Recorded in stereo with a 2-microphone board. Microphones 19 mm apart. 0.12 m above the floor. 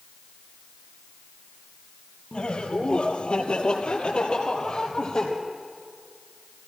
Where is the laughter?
55° left (ahead or behind), 3.5 m; by 5.3 s 45° left (ahead or behind), 4 m.